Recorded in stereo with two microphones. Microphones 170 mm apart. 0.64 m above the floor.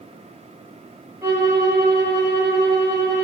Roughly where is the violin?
Centre.